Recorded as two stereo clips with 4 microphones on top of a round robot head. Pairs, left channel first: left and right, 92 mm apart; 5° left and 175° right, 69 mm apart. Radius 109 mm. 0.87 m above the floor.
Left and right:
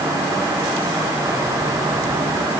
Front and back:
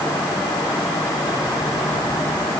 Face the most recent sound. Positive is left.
No sound to turn to.